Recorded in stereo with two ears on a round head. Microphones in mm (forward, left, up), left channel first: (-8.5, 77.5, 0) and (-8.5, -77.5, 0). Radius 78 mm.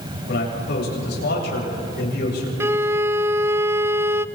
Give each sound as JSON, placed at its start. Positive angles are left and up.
{"t": 0.3, "sound": "a man speaking", "side_deg": 70, "distance_m": 9.0}
{"t": 2.6, "sound": "a violin", "side_deg": -15, "distance_m": 0.5}